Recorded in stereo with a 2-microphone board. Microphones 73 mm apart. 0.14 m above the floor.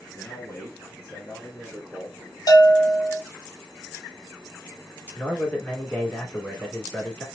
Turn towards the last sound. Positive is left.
turn(degrees=30)  # may be behind; listen again after turning